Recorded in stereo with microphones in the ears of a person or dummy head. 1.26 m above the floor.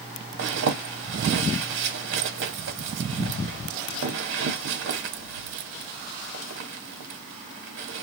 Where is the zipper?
60° right (ahead or behind), 1.1 m.